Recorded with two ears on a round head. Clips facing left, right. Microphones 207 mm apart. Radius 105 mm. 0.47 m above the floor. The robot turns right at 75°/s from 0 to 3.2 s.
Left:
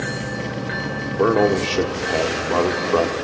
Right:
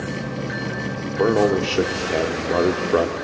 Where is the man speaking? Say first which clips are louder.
Left 1 dB; 5° left (ahead or behind), 1.2 m; by 3.1 s 15° right (ahead or behind), 1.2 m.